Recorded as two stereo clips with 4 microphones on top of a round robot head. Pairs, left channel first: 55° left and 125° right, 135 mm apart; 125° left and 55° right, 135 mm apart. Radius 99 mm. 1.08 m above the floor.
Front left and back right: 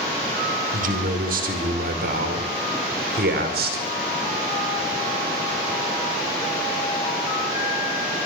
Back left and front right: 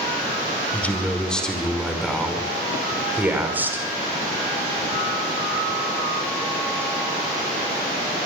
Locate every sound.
0.7 s a man speaking: 155° right, 5.5 m; by 3.9 s 130° right, 5.5 m